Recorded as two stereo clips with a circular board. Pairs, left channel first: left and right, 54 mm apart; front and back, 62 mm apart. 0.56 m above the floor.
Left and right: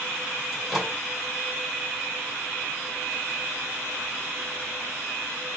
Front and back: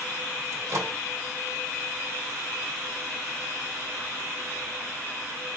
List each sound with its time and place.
0.5 s a microwave: 175° left, 2.0 m